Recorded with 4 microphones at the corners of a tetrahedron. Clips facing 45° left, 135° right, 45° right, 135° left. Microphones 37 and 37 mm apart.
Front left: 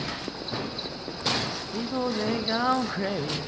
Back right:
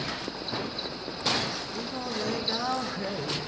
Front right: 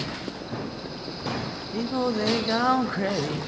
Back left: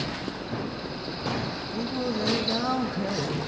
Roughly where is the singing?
Ahead.